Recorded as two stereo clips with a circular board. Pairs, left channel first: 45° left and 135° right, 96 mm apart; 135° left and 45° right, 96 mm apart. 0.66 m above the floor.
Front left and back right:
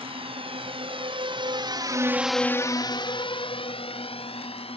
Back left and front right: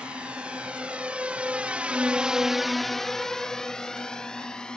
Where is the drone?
125° right; by 4.8 s 55° left.